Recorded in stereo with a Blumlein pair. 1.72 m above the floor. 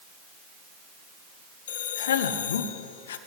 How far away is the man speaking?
About 1.9 m.